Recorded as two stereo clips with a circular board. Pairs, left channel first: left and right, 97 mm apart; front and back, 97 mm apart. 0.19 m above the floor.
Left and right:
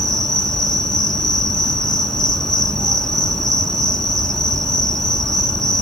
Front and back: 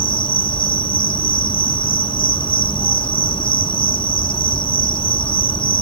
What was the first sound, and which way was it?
An insect, 5° left.